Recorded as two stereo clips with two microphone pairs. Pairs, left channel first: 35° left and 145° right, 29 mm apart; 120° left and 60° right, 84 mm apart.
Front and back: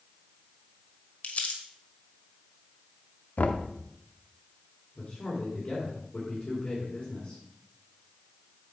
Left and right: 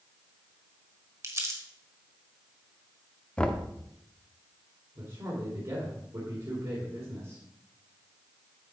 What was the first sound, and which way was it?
Crumpling, 5° right.